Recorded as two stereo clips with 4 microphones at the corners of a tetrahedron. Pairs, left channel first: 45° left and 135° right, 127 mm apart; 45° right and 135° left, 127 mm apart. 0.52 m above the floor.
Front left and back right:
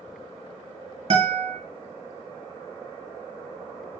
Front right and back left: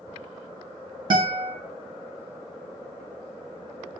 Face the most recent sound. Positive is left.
turn(degrees=-170)